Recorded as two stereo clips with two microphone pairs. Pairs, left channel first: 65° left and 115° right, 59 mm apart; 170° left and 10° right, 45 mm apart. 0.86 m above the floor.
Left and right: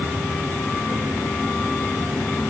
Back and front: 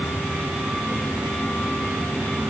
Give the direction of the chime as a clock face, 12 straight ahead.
I don't hear a chime.